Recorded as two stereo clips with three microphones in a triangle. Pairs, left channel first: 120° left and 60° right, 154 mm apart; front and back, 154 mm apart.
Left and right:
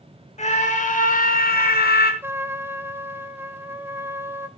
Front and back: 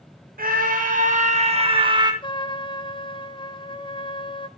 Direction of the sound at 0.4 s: 160° left.